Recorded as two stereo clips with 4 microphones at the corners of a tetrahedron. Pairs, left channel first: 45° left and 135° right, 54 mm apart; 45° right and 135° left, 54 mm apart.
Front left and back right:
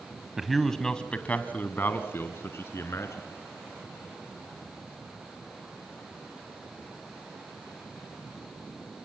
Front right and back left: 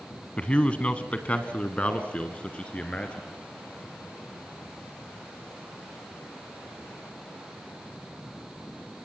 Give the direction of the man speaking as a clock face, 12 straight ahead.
2 o'clock.